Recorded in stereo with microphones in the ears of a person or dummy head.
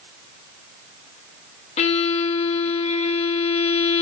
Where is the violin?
30° left (ahead or behind), 0.6 m.